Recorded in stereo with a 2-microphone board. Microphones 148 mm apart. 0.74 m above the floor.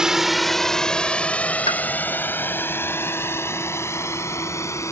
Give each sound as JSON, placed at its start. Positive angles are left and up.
{"t": 0.0, "sound": "a drone", "side_deg": -5}
{"t": 1.7, "sound": "a pop", "side_deg": 35}